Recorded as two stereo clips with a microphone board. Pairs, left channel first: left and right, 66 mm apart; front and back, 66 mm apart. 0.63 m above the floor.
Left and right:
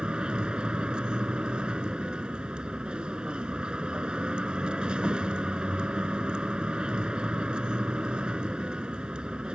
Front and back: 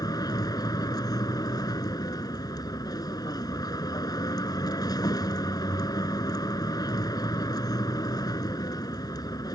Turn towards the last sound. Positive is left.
turn(degrees=-15)